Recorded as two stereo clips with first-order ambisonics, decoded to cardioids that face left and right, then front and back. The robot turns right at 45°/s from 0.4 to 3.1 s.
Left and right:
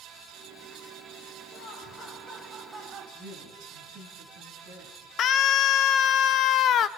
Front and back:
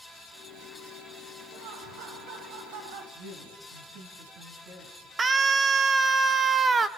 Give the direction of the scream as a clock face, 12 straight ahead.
8 o'clock.